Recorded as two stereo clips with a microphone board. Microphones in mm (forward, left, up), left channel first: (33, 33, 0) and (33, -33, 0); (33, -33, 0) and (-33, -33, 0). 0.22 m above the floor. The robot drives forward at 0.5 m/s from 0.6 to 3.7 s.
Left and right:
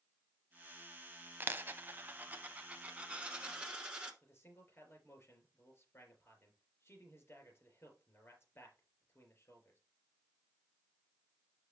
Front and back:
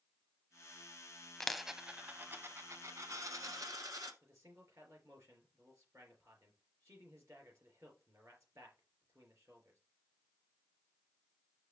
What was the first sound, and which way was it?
A dropped coin, 75° right.